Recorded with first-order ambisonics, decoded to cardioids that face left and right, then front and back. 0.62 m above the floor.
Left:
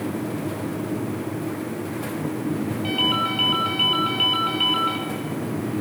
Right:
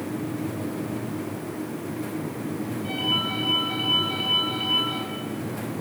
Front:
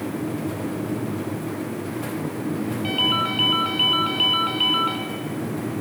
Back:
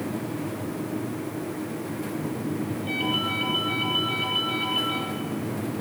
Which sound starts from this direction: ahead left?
A ringtone, at 2.8 s.